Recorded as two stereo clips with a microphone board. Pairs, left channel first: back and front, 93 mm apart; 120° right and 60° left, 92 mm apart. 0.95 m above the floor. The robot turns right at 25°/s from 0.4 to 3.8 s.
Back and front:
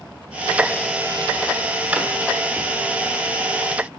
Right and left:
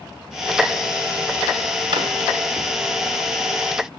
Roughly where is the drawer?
Left.